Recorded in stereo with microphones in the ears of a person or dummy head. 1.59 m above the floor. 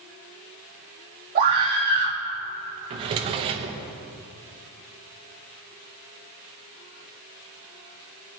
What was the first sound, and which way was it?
A scream, 45° right (ahead or behind).